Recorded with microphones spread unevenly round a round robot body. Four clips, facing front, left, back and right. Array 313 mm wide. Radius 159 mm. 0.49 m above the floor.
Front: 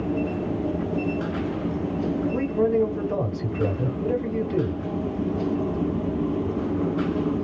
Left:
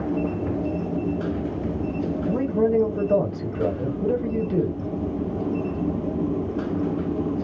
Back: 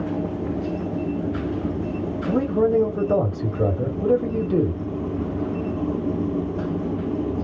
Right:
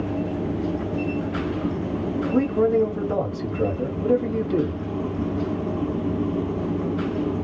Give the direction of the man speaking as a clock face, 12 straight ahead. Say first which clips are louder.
Right 2 dB, back 5 dB; 6 o'clock.